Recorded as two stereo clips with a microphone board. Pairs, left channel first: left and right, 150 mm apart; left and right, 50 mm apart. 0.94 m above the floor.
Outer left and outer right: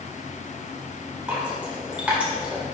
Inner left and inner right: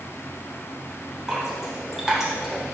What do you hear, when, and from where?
1.3 s dripping: 10° right (ahead or behind), 3 m